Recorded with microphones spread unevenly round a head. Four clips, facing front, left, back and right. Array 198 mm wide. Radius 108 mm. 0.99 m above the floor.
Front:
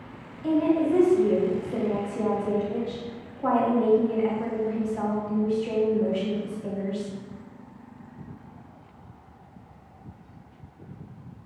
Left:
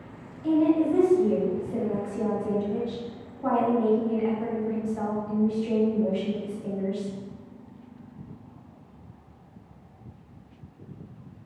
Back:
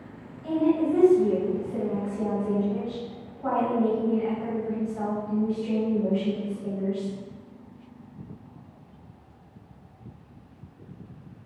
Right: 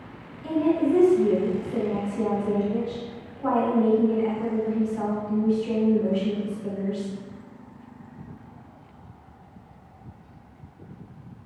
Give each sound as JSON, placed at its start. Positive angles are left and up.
{"t": 0.4, "sound": "a woman speaking", "azimuth_deg": 15, "distance_m": 2.5}